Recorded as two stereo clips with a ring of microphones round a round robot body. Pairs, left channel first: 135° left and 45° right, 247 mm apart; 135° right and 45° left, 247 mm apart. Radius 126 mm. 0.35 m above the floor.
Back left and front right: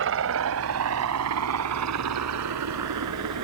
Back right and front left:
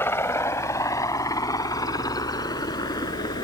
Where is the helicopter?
55° right; by 3.5 s 60° right.